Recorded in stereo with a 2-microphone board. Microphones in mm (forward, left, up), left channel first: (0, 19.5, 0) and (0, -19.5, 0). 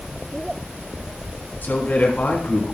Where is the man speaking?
40° left (ahead or behind), 2 m.